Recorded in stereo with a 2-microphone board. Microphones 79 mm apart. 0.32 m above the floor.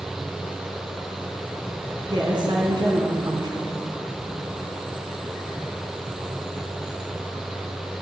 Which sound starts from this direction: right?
A woman speaking, at 2.0 s.